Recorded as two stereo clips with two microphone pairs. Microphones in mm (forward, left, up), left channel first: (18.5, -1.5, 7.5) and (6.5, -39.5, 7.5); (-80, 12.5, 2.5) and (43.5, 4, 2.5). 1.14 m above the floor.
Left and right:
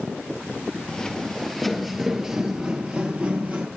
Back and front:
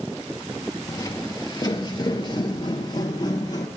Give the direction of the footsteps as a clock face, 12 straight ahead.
8 o'clock.